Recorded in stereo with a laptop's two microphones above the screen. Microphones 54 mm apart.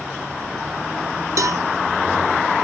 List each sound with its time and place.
1.4 s a cowbell: 75° right (ahead or behind), 1.4 m